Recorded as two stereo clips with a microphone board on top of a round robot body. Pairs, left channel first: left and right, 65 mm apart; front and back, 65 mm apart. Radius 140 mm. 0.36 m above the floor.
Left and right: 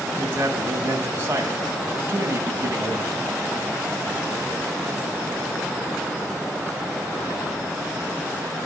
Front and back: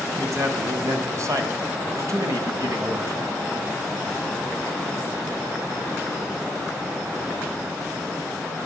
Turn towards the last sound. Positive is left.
turn(degrees=-145)